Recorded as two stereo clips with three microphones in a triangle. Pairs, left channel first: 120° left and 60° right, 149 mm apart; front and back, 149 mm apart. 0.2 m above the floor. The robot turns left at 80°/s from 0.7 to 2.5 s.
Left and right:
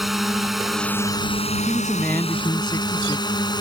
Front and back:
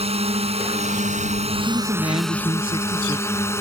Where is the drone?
150° right; by 3.6 s 70° left.